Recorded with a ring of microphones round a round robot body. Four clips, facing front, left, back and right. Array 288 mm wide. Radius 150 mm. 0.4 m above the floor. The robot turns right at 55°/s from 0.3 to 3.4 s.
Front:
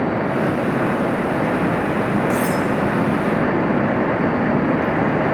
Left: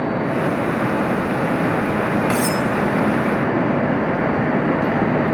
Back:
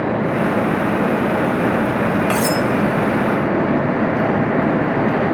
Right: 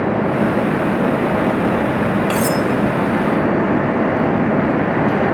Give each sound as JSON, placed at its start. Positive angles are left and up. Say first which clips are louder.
{"t": 2.3, "sound": "cutlery clinking", "louder": "right 2 dB, back 1 dB", "azimuth_deg": 165, "distance_m": 1.1}